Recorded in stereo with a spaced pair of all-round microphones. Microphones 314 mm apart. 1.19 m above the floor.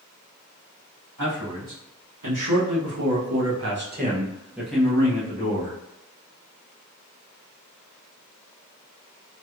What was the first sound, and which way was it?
A man speaking, 90° right.